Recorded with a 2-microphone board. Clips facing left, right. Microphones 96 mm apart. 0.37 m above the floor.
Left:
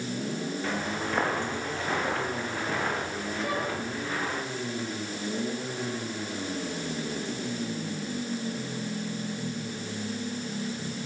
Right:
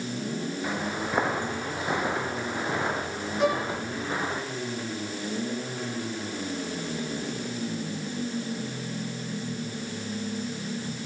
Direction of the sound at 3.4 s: 85° right.